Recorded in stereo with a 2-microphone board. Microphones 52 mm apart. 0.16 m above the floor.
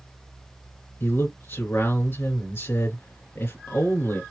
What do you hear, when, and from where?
1.0 s a man speaking: 50° left (ahead or behind), 2.5 m